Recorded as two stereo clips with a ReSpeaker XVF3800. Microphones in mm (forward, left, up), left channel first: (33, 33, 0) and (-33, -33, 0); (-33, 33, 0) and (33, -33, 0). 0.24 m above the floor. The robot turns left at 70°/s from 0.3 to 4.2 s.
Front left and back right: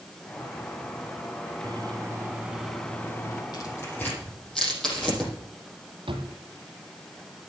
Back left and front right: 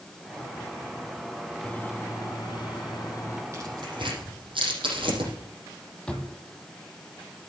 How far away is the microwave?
About 1.6 m.